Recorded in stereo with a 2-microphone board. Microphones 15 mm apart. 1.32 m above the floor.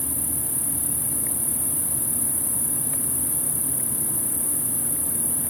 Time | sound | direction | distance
0.0 | an insect | 10° right (ahead or behind) | 1.3 m